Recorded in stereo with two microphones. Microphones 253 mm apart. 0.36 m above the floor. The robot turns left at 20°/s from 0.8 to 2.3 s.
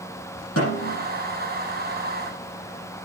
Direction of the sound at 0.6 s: 65° left (ahead or behind).